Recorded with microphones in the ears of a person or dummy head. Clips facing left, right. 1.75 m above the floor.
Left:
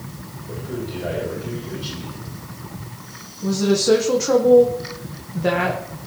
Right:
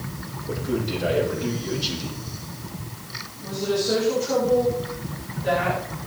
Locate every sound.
0.5 s a man speaking: 55° right (ahead or behind), 4 m
3.4 s a woman speaking: 85° left, 1.5 m